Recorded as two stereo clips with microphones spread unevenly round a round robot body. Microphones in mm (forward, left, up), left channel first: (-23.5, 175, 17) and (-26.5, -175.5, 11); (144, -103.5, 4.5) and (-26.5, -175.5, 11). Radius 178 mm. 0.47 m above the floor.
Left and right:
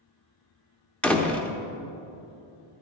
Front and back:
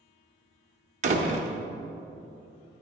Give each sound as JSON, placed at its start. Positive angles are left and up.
{"t": 1.0, "sound": "a door slam", "azimuth_deg": 175, "distance_m": 0.8}